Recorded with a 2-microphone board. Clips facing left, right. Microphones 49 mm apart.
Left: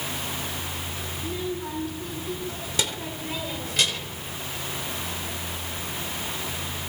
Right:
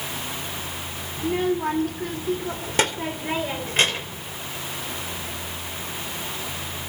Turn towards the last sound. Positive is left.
turn(degrees=-35)  # may be behind; listen again after turning